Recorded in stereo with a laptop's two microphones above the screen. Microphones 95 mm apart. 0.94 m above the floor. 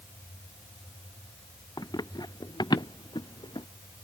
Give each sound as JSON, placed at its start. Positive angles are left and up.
{"t": 1.8, "sound": "running footsteps", "side_deg": 45}